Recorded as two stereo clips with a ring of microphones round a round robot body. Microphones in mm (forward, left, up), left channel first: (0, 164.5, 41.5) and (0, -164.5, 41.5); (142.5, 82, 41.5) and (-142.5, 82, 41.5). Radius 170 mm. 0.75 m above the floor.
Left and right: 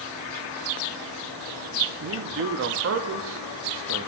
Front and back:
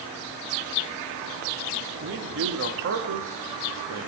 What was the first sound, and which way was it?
A man speaking, 135° right.